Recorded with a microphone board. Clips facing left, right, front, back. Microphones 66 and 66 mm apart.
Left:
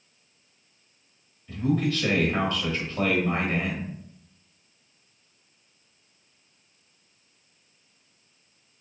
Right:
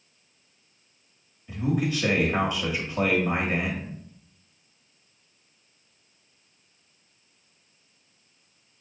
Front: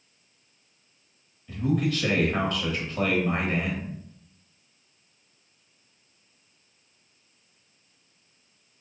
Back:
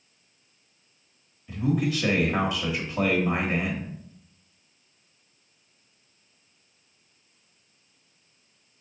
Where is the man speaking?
120° right, 0.9 m.